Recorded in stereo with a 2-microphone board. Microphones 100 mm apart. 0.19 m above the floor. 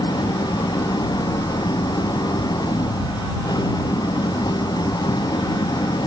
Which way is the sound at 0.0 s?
40° left (ahead or behind).